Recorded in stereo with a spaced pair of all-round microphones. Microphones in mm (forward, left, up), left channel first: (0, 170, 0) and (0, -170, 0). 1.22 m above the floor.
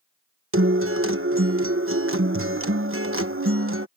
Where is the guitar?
40° right (ahead or behind).